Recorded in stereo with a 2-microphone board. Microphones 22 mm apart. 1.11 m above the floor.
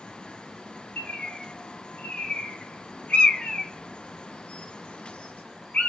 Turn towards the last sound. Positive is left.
turn(degrees=70)  # may be behind; listen again after turning